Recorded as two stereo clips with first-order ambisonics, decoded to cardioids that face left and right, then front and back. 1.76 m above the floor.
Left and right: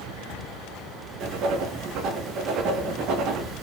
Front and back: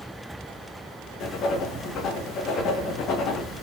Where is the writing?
50° right, 0.5 m.